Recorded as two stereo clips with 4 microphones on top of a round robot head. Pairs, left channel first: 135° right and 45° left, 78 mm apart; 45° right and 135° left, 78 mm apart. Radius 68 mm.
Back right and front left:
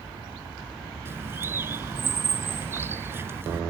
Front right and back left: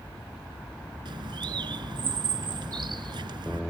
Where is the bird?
105° left.